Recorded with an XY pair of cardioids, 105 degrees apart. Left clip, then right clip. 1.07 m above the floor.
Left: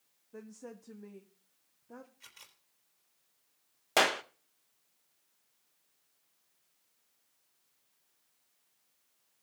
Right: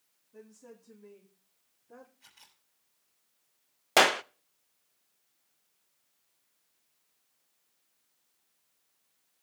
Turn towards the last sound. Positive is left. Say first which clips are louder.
# right 5 dB
turn(degrees=-30)